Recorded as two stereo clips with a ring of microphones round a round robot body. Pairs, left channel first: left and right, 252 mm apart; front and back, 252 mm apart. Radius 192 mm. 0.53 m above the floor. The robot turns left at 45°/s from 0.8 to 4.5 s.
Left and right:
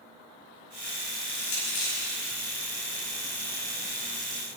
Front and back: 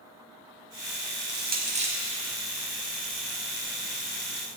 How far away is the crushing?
About 5 m.